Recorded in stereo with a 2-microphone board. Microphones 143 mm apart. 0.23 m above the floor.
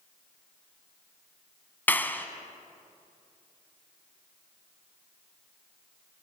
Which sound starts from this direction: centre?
A clap, at 1.9 s.